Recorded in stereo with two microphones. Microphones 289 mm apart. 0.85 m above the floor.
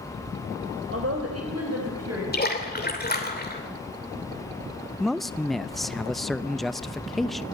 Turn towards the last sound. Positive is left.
turn(degrees=0)  # may be behind; listen again after turning